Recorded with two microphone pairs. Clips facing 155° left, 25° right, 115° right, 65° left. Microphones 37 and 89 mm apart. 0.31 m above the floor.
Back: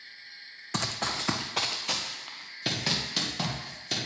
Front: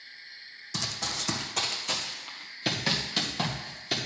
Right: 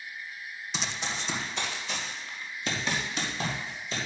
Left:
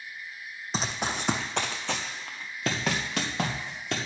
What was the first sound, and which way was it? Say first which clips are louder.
Running footsteps: back 3 dB, left 5 dB; 110° left.